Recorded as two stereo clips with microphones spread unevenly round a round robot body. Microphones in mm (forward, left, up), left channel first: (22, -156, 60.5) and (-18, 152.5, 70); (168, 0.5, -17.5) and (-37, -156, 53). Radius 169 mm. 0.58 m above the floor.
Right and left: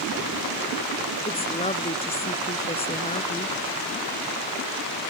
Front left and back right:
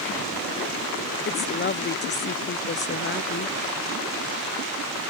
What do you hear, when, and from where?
1.2 s a woman speaking: 10° right